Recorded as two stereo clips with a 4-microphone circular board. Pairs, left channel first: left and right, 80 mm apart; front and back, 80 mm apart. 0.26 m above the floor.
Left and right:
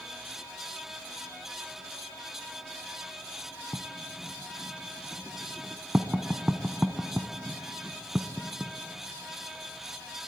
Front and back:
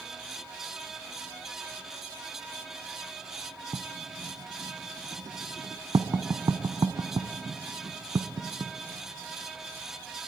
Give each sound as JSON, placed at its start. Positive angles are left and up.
{"t": 3.7, "sound": "writing", "azimuth_deg": -165, "distance_m": 1.0}